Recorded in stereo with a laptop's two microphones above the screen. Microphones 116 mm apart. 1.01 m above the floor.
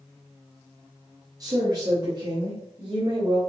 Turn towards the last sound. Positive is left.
turn(degrees=-35)  # may be behind; listen again after turning